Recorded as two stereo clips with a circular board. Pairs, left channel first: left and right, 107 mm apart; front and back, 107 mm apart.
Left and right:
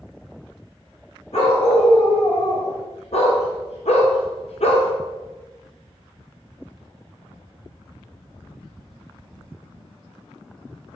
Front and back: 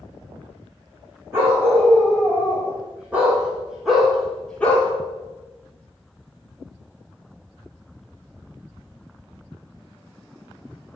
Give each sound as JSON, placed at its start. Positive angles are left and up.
{"t": 1.3, "sound": "a dog barking", "azimuth_deg": 110, "distance_m": 4.5}